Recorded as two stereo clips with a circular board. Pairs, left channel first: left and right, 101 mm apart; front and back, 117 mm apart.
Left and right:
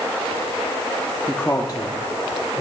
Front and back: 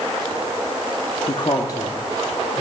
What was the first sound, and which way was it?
A man speaking, 10° left.